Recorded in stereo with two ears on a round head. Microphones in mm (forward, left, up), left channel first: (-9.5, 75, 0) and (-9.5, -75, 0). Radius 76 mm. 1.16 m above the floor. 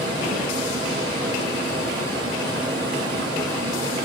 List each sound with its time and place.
0.0 s running water: 30° right (ahead or behind), 2.5 m